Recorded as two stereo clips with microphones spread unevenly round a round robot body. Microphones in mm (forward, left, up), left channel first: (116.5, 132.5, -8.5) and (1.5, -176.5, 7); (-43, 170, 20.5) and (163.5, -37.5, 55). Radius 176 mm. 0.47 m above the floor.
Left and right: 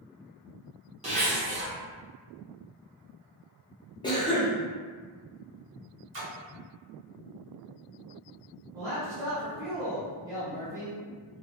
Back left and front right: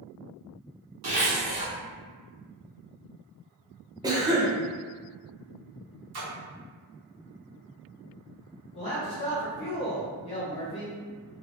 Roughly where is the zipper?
Ahead right.